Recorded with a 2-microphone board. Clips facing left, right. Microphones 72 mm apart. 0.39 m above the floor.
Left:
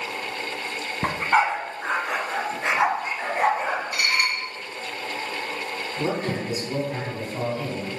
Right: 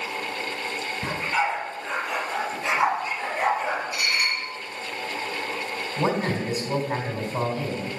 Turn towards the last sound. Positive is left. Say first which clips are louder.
# right 2 dB
turn(degrees=-45)  # may be behind; listen again after turning